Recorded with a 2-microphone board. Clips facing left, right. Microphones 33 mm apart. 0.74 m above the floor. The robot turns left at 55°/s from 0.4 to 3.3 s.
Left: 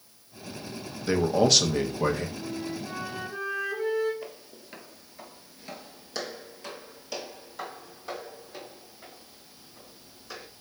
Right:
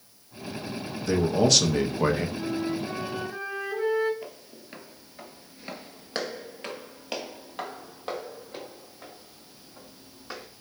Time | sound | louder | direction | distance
1.0 | a man speaking | even | 30° left | 0.6 m
2.4 | a flute | right 5 dB | 105° right | 1.0 m
4.2 | footsteps | even | 5° left (ahead or behind) | 1.0 m